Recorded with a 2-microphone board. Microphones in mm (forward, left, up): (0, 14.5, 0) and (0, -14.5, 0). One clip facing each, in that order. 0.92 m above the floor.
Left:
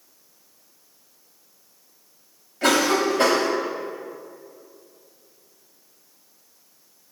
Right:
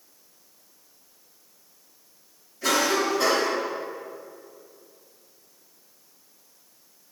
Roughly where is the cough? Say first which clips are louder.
Left 3 dB; left.